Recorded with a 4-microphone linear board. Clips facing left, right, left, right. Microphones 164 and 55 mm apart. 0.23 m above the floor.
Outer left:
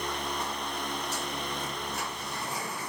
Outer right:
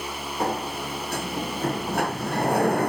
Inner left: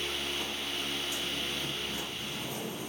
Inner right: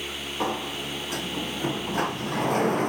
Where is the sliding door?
60° right (ahead or behind).